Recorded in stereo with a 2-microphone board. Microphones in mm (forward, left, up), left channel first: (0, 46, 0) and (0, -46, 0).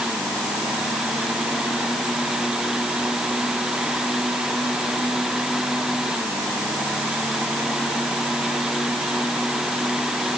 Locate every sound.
Only background noise.